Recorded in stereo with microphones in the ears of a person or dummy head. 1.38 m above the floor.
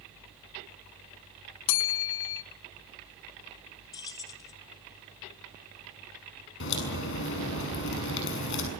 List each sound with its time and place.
1.7 s a bell: 65° left (ahead or behind), 0.7 m
3.9 s keys jangling: 20° left (ahead or behind), 0.6 m
6.6 s a crack: 65° left (ahead or behind), 6.5 m